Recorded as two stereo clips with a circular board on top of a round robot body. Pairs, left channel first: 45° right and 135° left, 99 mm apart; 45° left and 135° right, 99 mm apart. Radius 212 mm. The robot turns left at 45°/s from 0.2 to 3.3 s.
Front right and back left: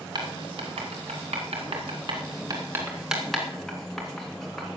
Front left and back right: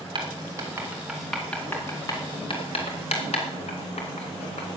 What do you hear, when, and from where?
0.1 s writing: straight behind, 2.5 m; by 4.7 s 45° left, 2.5 m